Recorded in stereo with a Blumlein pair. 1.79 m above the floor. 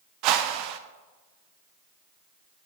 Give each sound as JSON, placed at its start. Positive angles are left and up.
{"t": 0.2, "sound": "a whoosh", "azimuth_deg": -40, "distance_m": 0.6}